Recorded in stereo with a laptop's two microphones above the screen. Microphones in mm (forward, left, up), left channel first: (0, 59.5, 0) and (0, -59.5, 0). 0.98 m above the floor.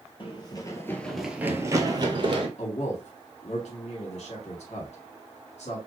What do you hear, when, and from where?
0.2 s running footsteps: 45° left (ahead or behind), 1.3 m; by 2.5 s 45° right (ahead or behind), 1.6 m
2.6 s a man speaking: 70° left (ahead or behind), 2 m